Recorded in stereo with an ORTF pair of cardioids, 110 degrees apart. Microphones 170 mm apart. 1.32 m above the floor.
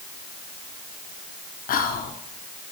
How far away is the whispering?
About 0.7 m.